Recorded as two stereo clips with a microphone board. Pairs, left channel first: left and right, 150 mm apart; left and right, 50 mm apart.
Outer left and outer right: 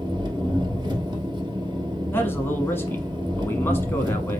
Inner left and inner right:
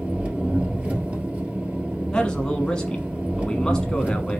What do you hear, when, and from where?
0.0 s an engine running: 30° right (ahead or behind), 1.4 m
2.1 s a man speaking: 15° left (ahead or behind), 1.0 m